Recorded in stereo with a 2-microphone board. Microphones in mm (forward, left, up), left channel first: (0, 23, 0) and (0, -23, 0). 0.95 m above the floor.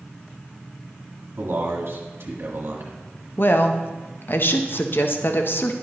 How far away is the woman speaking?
About 0.7 m.